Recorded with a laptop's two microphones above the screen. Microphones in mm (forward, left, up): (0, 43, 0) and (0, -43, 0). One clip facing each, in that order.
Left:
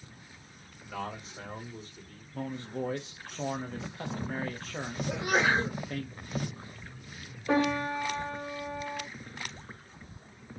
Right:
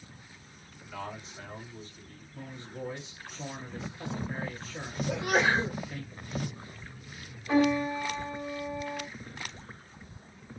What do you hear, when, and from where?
0.8 s a man speaking: 45° left (ahead or behind), 1.6 m
2.3 s a man speaking: 60° left (ahead or behind), 1.0 m
5.1 s a sneeze: 10° left (ahead or behind), 1.3 m
7.5 s a piano: 80° left, 1.7 m